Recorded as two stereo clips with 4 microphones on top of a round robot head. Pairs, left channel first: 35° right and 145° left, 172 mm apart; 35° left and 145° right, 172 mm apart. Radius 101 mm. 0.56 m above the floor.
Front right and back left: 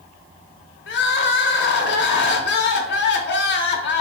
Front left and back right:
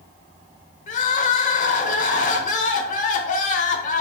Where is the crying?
10° right, 0.6 m.